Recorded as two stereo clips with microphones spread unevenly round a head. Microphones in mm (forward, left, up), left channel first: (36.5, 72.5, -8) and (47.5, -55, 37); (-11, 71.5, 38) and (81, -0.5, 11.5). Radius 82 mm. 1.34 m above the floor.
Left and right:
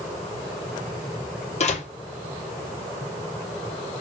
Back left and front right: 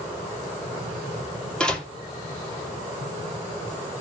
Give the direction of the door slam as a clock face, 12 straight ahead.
10 o'clock.